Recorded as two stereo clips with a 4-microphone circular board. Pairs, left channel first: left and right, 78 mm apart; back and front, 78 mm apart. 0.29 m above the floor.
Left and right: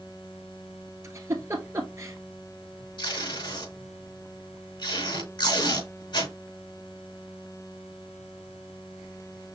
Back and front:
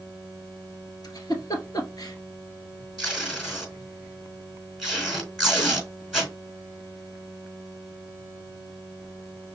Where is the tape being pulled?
85° left, 4 m.